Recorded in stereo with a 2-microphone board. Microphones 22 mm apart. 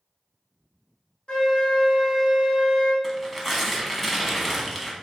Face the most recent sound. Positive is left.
turn(degrees=0)  # may be behind; listen again after turning